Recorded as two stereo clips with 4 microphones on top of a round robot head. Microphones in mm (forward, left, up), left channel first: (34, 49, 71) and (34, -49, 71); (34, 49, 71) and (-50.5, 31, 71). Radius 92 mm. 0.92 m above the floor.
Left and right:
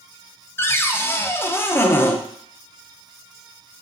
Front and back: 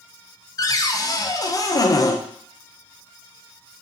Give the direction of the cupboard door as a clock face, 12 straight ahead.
11 o'clock.